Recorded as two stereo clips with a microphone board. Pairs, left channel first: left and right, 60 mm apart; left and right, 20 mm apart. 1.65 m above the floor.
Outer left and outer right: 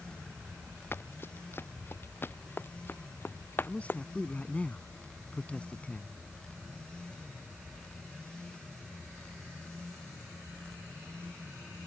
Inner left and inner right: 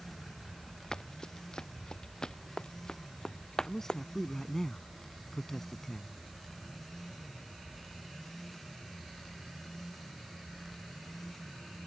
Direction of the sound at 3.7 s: 20° left (ahead or behind).